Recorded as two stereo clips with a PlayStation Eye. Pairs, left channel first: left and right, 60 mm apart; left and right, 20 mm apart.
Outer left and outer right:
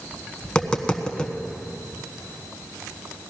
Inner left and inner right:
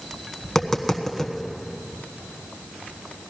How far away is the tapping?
About 1.2 m.